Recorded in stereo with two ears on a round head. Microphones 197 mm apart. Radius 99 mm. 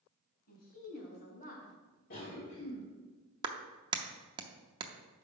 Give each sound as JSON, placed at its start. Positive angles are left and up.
{"t": 0.5, "sound": "a woman speaking", "side_deg": 45, "distance_m": 3.0}
{"t": 2.1, "sound": "a cough", "side_deg": 40, "distance_m": 1.6}
{"t": 3.4, "sound": "a clap", "side_deg": -20, "distance_m": 0.6}